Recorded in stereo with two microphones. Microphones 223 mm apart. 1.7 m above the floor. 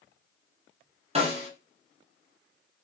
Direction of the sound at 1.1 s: 25° right (ahead or behind).